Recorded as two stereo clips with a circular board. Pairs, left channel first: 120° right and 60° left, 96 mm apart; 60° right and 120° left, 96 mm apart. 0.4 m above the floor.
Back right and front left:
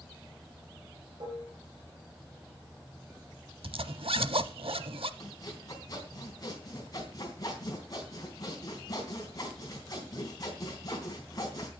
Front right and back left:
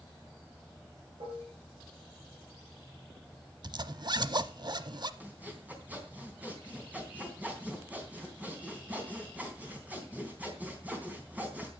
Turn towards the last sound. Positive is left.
turn(degrees=-165)